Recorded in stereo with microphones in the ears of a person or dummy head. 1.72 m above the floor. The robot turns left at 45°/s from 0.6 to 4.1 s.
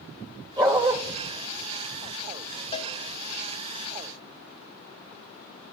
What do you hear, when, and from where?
0.6 s a dog barking: 15° right (ahead or behind), 2.5 m; by 1.0 s 30° right (ahead or behind), 2.5 m
2.7 s a cowbell: 40° left (ahead or behind), 1.5 m; by 2.9 s 30° left (ahead or behind), 1.5 m